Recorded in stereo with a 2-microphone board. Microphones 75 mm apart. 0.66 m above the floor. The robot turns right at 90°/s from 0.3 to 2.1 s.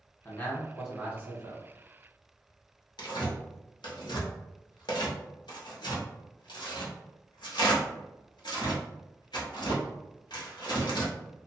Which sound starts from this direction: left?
Tearing paper, at 3.0 s.